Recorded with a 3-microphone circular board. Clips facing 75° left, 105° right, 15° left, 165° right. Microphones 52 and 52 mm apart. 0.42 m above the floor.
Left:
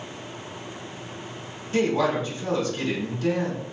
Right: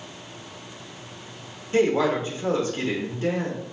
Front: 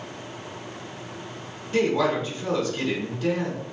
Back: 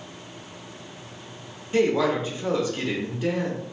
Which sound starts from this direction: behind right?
A woman speaking, at 1.7 s.